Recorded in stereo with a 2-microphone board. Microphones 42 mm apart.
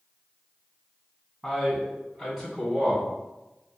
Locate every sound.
1.4 s a man speaking: centre (ahead or behind), 1.9 m; by 3.0 s 35° right (ahead or behind), 2 m